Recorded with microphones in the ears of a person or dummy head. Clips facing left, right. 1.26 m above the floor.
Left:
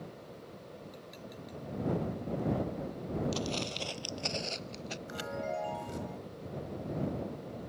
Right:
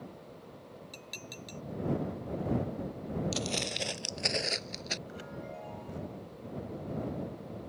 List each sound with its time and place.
0.9 s dishes clattering: 45° right (ahead or behind)
3.3 s footsteps: 20° right (ahead or behind)
5.1 s a chime: 80° left